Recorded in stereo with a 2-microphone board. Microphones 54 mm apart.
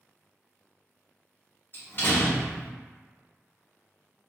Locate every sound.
1.7 s a door slam: 40° left (ahead or behind), 1.0 m